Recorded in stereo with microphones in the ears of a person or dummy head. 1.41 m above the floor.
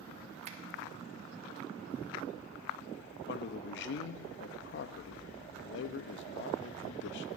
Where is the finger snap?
35° right (ahead or behind), 1.0 m.